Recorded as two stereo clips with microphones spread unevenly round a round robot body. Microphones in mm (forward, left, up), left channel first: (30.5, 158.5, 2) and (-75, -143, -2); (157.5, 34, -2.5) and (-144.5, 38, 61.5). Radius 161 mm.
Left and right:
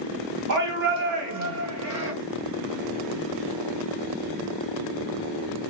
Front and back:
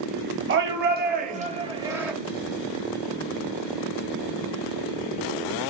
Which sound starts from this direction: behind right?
A shout, at 0.5 s.